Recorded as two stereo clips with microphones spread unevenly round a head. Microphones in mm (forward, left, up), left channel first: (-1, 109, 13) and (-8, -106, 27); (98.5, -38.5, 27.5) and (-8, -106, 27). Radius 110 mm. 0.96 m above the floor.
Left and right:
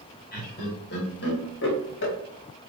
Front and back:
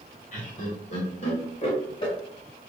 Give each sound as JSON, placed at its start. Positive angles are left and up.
{"t": 0.3, "sound": "laughter", "azimuth_deg": 45, "distance_m": 1.7}